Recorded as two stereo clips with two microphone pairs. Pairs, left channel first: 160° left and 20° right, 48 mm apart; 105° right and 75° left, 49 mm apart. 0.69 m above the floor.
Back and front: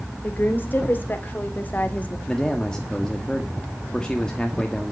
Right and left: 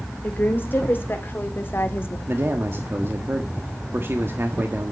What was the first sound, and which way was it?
A woman speaking, 150° right.